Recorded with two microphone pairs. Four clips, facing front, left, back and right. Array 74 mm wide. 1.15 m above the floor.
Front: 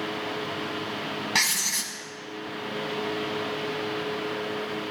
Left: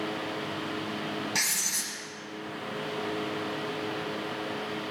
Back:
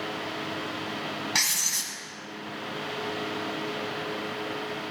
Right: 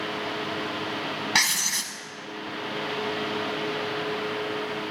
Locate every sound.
1.4 s writing: 75° right, 1.1 m